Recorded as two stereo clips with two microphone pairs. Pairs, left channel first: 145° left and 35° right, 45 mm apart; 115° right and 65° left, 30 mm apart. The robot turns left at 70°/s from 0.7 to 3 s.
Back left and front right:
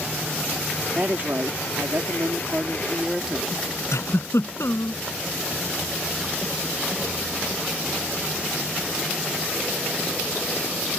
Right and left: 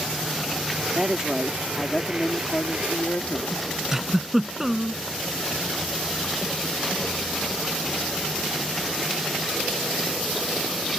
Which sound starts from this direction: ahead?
A woman speaking, at 0.9 s.